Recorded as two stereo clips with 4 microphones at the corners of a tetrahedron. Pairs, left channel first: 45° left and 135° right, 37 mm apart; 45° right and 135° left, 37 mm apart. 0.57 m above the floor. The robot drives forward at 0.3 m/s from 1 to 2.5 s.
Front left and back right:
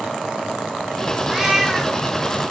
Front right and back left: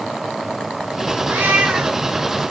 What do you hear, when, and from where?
1.3 s a cat meowing: 145° left, 1.4 m; by 2.0 s 150° left, 1.6 m